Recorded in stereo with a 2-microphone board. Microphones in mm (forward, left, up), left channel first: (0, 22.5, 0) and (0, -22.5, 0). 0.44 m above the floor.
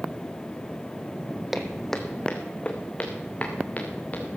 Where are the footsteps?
5° right (ahead or behind), 1.3 m; by 4.2 s 35° left (ahead or behind), 4 m.